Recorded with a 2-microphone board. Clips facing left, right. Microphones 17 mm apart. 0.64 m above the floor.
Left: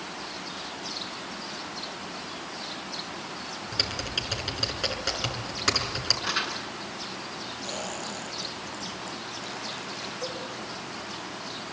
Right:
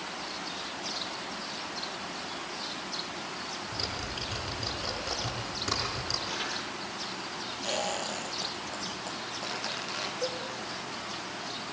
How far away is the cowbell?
About 9.5 m.